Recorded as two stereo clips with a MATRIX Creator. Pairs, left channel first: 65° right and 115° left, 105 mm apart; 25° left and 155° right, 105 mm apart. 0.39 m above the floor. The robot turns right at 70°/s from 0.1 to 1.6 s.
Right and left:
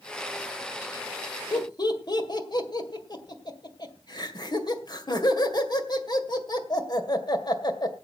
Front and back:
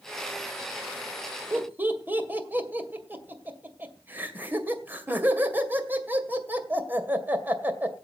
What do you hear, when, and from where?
1.5 s laughter: 100° right, 2 m; by 7.9 s 95° right, 2 m